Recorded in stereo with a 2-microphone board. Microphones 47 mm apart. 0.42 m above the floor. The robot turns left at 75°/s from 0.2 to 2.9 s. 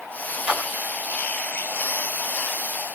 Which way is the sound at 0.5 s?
25° right (ahead or behind).